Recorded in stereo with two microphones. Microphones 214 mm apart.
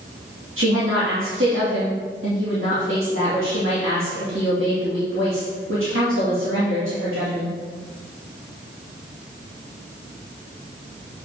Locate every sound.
0.6 s a woman speaking: 70° right (ahead or behind), 2 m